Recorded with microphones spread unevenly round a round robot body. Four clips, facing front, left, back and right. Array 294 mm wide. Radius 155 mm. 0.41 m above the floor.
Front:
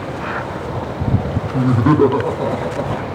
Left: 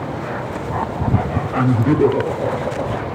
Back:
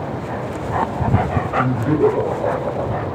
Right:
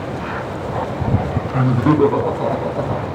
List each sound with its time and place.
1.5 s laughter: 15° right, 3 m; by 3.1 s 45° right, 4.5 m